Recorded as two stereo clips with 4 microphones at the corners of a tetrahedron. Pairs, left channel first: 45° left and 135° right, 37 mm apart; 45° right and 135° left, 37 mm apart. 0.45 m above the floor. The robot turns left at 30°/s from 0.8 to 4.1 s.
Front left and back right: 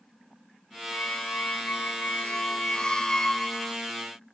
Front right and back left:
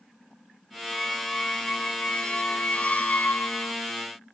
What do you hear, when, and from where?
0.9 s a squeak: 45° left; by 3.8 s 40° right